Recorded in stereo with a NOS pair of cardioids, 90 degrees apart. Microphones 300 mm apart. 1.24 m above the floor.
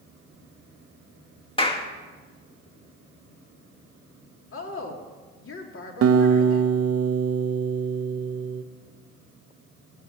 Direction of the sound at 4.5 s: 45° left.